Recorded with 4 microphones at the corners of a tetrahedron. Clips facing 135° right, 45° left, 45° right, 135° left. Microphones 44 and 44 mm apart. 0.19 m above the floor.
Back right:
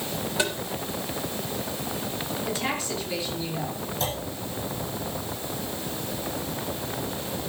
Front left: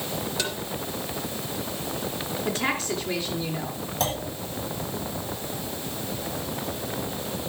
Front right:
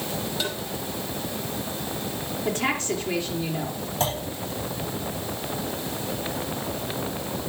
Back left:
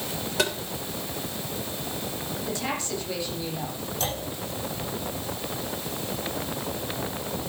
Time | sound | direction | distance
0.4 | tapping | 155° left | 3 m
2.5 | a woman speaking | 5° left | 4 m
4.0 | a clunk | 15° left | 8.5 m